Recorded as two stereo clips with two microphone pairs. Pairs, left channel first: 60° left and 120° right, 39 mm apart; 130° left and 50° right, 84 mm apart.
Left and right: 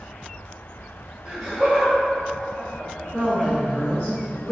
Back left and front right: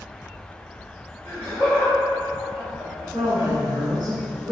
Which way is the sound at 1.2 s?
150° left.